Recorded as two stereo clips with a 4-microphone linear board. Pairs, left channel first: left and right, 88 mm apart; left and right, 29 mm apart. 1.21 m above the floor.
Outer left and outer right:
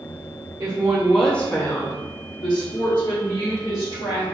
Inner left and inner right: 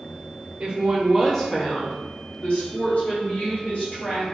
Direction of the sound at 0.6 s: 35° right (ahead or behind).